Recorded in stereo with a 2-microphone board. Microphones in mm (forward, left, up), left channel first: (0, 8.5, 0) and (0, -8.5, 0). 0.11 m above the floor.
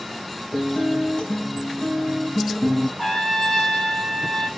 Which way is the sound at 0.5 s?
60° left (ahead or behind).